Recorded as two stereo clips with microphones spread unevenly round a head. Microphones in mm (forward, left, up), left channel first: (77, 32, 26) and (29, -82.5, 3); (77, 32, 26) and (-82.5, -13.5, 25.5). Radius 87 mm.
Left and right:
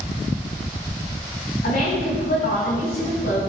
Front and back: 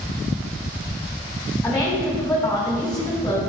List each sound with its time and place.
1.6 s a woman speaking: 100° left, 4.5 m